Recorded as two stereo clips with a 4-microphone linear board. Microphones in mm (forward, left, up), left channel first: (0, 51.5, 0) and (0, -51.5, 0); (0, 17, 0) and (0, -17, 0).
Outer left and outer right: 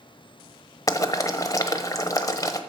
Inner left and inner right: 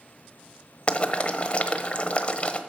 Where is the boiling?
35° left (ahead or behind), 1.1 m.